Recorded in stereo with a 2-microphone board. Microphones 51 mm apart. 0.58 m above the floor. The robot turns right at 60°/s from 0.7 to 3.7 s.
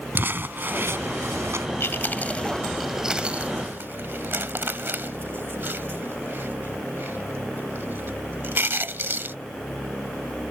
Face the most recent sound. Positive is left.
turn(degrees=-50)  # may be behind; listen again after turning